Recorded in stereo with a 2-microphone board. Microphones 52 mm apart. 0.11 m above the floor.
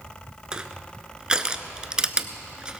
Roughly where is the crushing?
Centre.